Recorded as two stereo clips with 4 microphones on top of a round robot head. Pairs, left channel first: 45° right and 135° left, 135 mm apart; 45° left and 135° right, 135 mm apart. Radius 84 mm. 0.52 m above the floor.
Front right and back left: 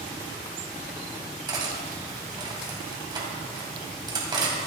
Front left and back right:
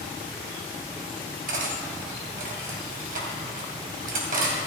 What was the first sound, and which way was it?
Cutlery clinking, 160° right.